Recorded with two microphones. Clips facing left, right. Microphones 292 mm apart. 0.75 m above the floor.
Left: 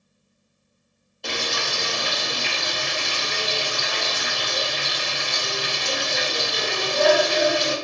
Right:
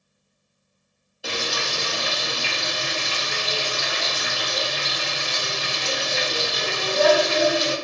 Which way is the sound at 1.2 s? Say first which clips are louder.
Even; 5° right (ahead or behind).